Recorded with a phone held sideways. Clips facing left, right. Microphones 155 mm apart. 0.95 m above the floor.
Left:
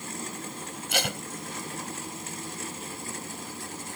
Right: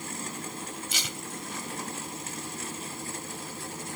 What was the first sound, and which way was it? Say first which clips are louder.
Tape being pulled: left 8 dB; 65° left (ahead or behind).